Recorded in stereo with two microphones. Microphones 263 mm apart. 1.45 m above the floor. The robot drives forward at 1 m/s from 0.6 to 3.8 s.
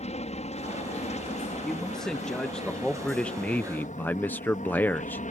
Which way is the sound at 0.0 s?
25° left (ahead or behind).